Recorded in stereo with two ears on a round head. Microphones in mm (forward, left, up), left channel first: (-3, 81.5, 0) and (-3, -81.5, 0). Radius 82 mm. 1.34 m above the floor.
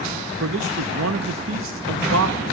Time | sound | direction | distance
0.4 | a man speaking | 80° right | 0.8 m